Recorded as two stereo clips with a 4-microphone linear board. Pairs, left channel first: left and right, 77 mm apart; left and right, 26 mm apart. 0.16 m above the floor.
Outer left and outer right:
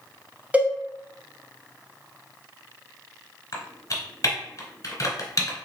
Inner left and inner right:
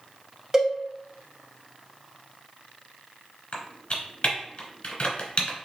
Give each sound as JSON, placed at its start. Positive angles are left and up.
{"t": 0.5, "sound": "a cowbell", "side_deg": -15, "distance_m": 0.7}
{"t": 3.5, "sound": "typing on a keyboard", "side_deg": 45, "distance_m": 1.2}